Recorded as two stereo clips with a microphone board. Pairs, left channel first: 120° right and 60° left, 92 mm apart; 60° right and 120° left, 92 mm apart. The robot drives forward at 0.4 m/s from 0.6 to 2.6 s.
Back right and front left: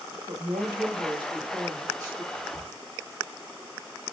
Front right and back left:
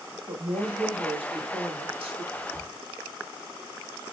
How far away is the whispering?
About 0.6 m.